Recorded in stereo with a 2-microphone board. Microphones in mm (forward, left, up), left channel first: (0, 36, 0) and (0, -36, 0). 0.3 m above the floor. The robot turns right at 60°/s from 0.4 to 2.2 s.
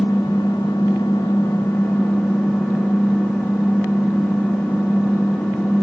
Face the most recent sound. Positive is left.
turn(degrees=170)